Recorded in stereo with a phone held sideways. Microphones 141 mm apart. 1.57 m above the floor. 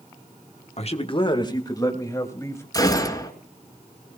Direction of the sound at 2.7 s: 25° left (ahead or behind).